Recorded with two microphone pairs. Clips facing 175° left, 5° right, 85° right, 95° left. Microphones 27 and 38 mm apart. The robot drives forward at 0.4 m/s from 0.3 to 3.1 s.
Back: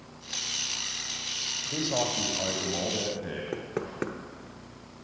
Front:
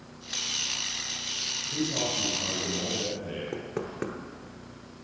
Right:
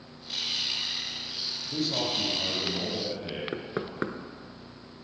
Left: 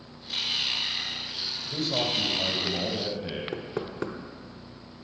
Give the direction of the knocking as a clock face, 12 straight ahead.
4 o'clock.